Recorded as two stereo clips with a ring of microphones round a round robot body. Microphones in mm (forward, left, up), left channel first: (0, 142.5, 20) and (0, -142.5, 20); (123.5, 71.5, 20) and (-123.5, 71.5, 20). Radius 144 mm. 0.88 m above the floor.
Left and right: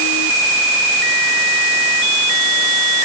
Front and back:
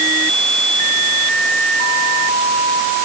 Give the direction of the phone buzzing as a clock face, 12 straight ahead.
I don't hear a phone buzzing.